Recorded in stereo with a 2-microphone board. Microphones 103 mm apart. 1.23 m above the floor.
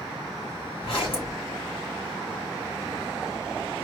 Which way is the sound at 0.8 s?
60° left (ahead or behind).